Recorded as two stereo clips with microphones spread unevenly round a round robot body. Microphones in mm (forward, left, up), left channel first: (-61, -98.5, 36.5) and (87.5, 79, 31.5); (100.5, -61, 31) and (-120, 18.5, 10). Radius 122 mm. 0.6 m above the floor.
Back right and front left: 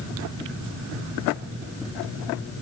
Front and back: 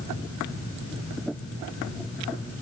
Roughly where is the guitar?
No guitar in this recording.